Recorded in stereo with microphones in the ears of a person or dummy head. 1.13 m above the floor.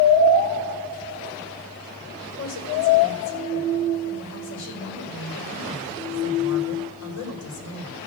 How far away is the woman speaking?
About 4.5 m.